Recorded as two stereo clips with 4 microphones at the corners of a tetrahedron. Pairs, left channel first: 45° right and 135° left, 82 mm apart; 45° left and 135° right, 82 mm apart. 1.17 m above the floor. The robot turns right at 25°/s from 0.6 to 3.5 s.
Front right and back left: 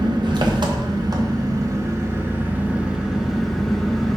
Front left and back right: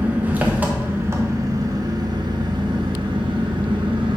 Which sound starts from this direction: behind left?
An engine running, at 0.0 s.